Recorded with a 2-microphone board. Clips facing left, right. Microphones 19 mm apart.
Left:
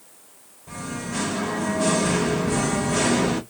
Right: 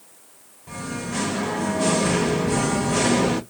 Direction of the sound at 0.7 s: 25° right (ahead or behind).